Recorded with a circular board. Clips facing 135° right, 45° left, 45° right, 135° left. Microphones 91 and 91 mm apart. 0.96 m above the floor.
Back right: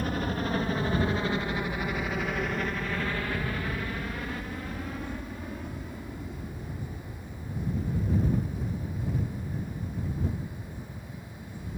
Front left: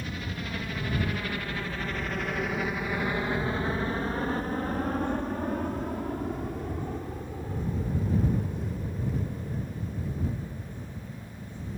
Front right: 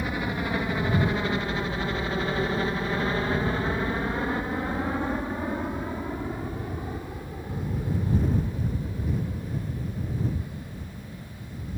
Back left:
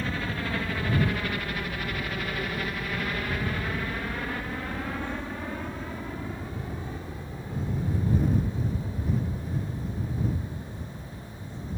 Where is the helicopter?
115° right; by 11.8 s 35° left.